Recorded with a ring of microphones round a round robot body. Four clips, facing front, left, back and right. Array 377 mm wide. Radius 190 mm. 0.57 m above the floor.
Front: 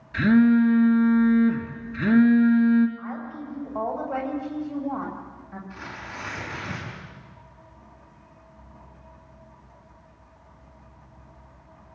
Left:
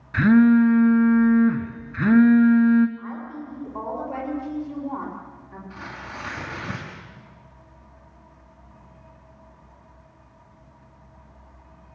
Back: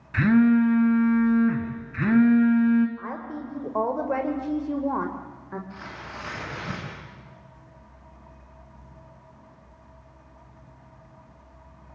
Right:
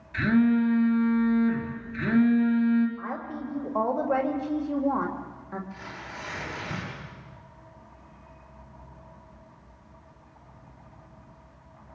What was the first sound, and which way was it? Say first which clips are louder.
A phone buzzing: left 7 dB, front 1 dB; 120° left.